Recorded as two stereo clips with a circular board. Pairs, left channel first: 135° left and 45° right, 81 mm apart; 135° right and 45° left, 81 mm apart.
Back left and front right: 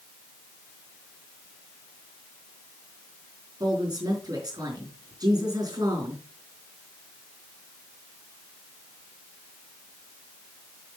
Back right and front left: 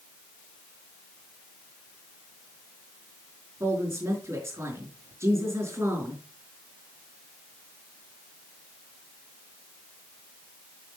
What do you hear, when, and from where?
3.6 s a woman speaking: 10° right, 5 m